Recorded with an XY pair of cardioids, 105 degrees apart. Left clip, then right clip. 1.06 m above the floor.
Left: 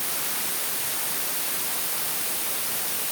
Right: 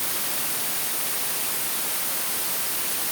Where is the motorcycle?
No motorcycle in this recording.